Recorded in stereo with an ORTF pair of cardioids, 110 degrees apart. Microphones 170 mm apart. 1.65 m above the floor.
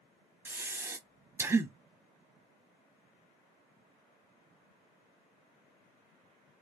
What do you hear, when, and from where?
0.5 s breathing: 10° right, 0.6 m